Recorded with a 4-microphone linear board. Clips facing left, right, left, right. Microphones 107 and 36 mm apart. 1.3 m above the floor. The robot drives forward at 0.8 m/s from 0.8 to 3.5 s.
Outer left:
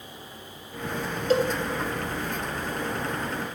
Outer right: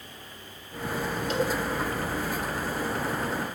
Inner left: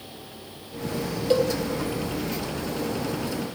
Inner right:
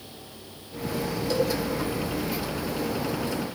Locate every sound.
1.3 s a cowbell: 40° left (ahead or behind), 1.9 m